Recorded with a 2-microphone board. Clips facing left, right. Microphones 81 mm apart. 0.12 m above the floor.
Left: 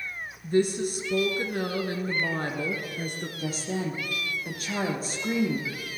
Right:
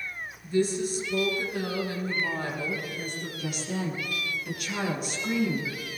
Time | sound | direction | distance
0.4 | a woman speaking | 50° left (ahead or behind) | 2 m
3.4 | a woman speaking | 35° left (ahead or behind) | 3 m